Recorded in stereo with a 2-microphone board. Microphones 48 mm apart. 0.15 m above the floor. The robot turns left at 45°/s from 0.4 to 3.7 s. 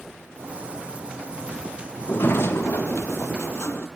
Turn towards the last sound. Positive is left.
turn(degrees=60)